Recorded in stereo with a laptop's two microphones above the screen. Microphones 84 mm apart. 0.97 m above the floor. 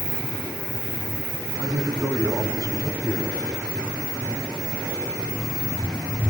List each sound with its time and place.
1.6 s a man speaking: 50° right (ahead or behind), 8.5 m